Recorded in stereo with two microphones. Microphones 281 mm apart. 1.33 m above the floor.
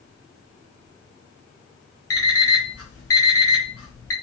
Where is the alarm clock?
55° left (ahead or behind), 0.7 m.